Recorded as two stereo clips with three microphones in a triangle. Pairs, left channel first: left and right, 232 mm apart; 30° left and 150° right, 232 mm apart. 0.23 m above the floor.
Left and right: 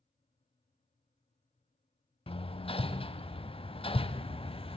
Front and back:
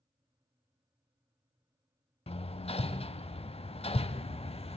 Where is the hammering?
55° left, 0.5 m.